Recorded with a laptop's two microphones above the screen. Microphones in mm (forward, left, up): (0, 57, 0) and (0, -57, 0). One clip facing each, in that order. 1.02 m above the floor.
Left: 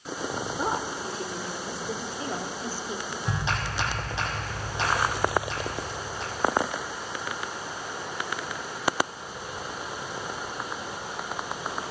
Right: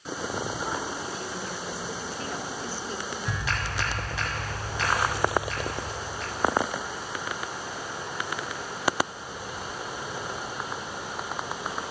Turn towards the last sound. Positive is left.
turn(degrees=25)  # may be behind; listen again after turning